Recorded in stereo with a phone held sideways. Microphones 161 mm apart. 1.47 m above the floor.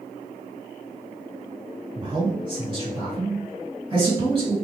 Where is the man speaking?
30° right (ahead or behind), 1.6 m.